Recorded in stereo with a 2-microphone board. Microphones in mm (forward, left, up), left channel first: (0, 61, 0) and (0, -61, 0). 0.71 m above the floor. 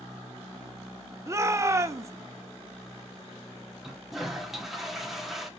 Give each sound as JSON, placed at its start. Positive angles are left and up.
{"t": 1.3, "sound": "a shout", "side_deg": -25, "distance_m": 0.9}
{"t": 3.8, "sound": "a toilet flushing", "side_deg": 0, "distance_m": 1.5}